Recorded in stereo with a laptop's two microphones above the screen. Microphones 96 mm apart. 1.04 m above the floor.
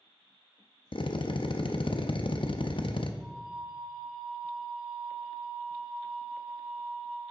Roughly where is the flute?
Centre.